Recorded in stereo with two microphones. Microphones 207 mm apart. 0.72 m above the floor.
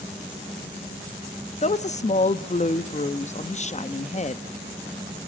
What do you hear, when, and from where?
1.6 s a woman speaking: 35° left (ahead or behind), 0.6 m